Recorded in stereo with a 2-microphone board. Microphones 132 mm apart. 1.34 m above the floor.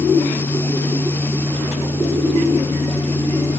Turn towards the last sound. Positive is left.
No sound to turn to.